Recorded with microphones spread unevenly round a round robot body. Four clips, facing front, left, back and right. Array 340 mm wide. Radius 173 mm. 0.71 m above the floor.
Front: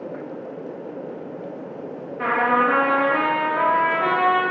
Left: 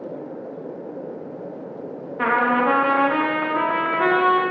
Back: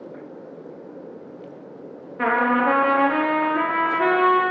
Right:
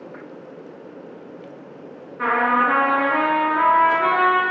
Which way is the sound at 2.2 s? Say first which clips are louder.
Even, even; 140° left.